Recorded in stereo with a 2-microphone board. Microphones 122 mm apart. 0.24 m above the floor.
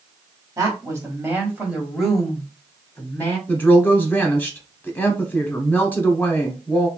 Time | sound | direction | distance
0.6 | a woman speaking | 25° right (ahead or behind) | 1.3 m
3.5 | a woman speaking | 15° left (ahead or behind) | 1.3 m